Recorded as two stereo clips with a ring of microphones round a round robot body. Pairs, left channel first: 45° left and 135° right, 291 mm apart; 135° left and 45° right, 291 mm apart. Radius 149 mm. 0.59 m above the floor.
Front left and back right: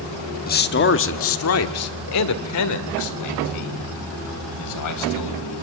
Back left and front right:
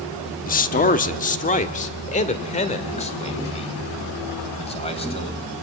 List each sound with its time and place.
0.5 s a man speaking: 90° left, 1.1 m; by 5.4 s 65° left, 4 m